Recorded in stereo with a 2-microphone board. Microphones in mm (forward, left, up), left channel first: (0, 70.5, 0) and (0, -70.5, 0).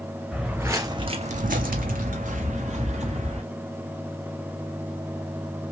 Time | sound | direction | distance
0.3 | footsteps | 5° right (ahead or behind) | 0.9 m